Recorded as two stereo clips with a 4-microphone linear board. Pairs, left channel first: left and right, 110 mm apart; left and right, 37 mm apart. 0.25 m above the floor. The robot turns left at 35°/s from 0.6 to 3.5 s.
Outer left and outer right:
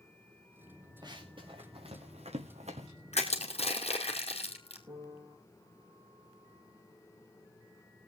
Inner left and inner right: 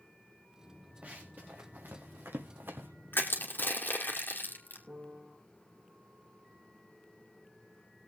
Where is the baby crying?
I don't hear a baby crying.